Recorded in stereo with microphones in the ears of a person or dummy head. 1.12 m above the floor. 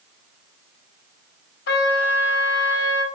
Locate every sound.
1.7 s a trumpet: 65° left (ahead or behind), 1.2 m